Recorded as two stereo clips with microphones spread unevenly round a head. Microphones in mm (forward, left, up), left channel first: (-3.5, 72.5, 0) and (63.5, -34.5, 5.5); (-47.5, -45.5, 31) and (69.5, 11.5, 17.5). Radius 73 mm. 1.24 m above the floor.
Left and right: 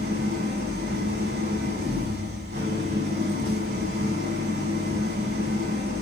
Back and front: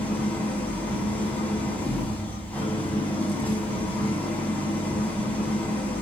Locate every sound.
0.0 s an engine running: 75° right, 6 m